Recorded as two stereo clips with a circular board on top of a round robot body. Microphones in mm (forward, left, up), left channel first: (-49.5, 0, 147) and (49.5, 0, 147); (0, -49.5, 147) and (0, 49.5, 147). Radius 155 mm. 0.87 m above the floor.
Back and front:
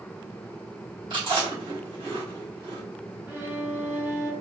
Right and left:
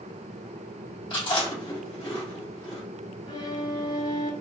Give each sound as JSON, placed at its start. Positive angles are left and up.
{"t": 1.1, "sound": "chewing", "azimuth_deg": -45, "distance_m": 2.5}
{"t": 3.3, "sound": "a violin", "azimuth_deg": -55, "distance_m": 1.6}